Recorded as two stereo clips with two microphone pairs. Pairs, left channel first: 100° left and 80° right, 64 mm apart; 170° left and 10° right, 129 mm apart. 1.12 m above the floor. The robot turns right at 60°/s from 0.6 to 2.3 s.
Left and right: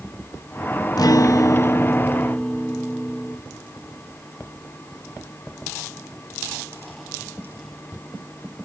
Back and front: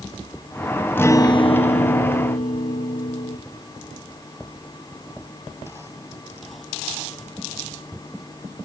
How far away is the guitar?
About 0.7 m.